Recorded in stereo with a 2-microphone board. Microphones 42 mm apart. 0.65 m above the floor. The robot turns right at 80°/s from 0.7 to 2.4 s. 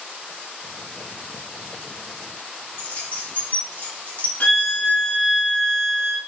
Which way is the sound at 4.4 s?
40° left (ahead or behind).